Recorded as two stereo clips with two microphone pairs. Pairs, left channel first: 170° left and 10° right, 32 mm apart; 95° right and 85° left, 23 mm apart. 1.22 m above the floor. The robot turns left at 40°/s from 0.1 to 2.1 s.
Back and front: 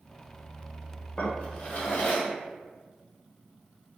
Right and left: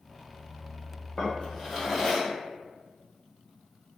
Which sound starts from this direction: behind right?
A drawer, at 1.2 s.